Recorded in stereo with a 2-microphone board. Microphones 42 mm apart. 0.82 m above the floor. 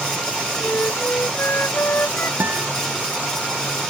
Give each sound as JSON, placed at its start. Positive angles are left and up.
{"t": 0.6, "sound": "a flute", "side_deg": 65}
{"t": 2.4, "sound": "a guitar", "side_deg": -60}